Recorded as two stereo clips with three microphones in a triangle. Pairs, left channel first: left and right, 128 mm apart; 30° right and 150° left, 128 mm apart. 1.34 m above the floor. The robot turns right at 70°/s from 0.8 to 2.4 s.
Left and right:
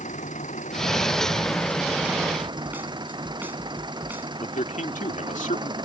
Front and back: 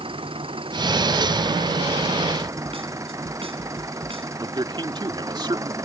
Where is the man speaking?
100° left.